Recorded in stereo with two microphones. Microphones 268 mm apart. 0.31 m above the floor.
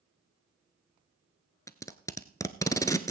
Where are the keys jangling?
I don't hear keys jangling.